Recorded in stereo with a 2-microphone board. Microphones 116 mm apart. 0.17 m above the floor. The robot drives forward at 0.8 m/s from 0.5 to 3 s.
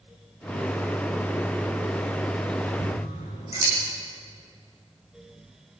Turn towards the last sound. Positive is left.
turn(degrees=60)  # may be behind; listen again after turning